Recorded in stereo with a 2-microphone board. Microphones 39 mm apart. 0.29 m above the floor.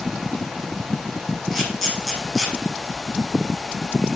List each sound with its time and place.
1.5 s a camera shutter: 10° left (ahead or behind), 6.5 m